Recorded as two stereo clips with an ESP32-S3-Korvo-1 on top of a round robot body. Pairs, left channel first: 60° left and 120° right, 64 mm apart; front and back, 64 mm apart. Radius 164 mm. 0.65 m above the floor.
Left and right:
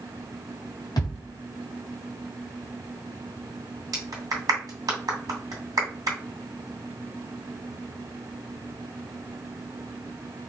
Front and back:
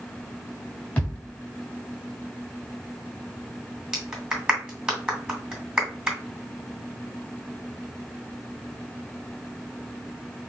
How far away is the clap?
About 2.5 m.